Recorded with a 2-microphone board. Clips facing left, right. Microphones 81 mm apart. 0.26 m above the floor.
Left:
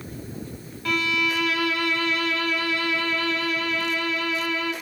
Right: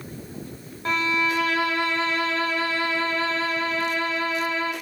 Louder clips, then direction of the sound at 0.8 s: Right 1 dB; 30° right (ahead or behind).